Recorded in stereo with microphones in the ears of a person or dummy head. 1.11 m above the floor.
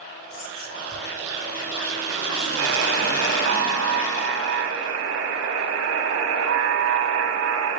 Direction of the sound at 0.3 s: 75° left (ahead or behind).